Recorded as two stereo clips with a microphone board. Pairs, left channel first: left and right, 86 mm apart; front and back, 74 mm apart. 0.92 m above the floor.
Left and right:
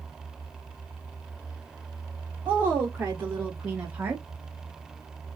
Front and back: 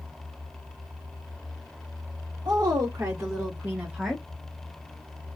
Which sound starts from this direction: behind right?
A woman speaking, at 2.5 s.